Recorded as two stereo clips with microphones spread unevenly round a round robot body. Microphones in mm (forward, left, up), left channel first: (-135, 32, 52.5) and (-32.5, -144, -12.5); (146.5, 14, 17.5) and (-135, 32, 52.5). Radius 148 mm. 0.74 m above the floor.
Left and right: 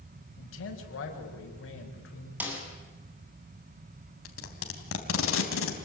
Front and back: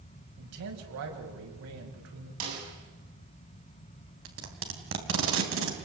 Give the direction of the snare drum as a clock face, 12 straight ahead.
5 o'clock.